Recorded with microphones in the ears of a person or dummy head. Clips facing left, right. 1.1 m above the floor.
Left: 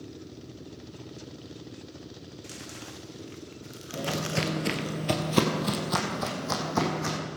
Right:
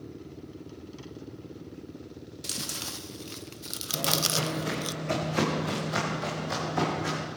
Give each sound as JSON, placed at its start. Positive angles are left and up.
{"t": 2.4, "sound": "chewing", "side_deg": -55, "distance_m": 0.5}
{"t": 3.9, "sound": "footsteps", "side_deg": 10, "distance_m": 1.6}